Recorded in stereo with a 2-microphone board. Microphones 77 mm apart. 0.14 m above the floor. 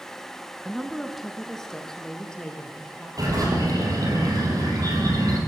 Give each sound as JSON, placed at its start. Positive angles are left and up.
{"t": 0.7, "sound": "a woman speaking", "side_deg": -5, "distance_m": 1.3}
{"t": 3.2, "sound": "a bird", "side_deg": -50, "distance_m": 4.5}